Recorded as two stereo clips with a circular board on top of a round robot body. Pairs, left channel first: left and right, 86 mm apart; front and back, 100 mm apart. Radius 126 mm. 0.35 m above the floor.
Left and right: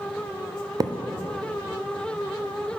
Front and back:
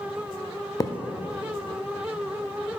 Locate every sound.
0.8 s a thud: 50° right, 0.5 m